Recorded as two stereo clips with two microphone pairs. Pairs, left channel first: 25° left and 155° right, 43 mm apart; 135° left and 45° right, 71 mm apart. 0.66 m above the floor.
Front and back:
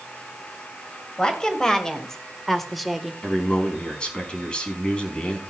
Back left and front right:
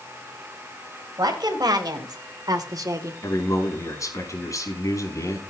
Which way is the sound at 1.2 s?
45° right.